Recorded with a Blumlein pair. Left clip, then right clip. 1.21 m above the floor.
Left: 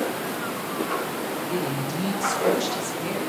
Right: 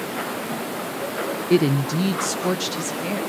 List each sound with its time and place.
1.5 s a woman speaking: 35° right, 0.6 m; by 3.2 s 10° right, 1.8 m